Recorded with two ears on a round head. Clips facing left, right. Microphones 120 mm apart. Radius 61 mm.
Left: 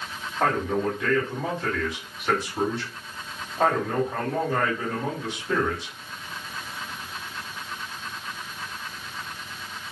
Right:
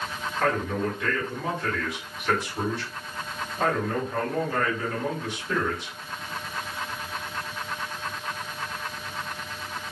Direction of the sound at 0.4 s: 25° left (ahead or behind).